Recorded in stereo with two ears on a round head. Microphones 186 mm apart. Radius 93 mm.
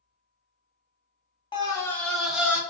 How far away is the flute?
No flute in this recording.